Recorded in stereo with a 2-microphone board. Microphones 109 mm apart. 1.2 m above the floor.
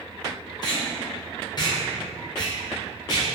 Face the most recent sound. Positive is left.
turn(degrees=40)  # may be behind; listen again after turning